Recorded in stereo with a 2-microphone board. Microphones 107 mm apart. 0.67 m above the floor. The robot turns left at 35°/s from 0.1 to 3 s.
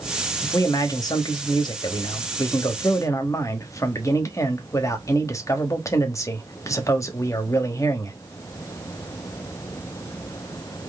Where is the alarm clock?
No alarm clock in this recording.